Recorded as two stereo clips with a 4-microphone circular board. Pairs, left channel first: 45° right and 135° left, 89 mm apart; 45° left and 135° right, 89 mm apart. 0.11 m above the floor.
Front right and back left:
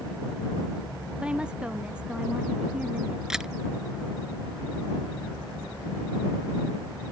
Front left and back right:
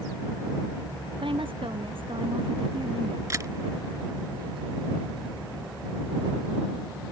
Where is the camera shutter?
145° right.